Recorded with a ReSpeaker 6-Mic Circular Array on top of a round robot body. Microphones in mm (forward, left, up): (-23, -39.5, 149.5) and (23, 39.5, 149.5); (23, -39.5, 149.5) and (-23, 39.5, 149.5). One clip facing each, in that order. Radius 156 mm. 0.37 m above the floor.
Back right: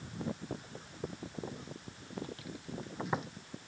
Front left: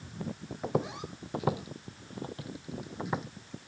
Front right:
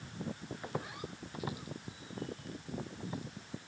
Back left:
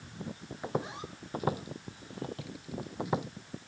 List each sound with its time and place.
0.6 s footsteps: 50° left; by 3.3 s 150° left